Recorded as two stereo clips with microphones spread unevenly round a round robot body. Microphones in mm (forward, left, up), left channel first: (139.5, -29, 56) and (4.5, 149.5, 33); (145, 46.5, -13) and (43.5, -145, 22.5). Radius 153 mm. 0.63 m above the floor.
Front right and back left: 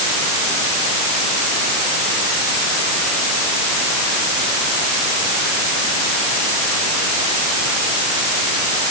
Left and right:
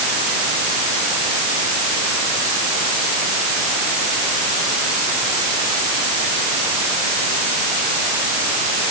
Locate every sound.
Only background noise.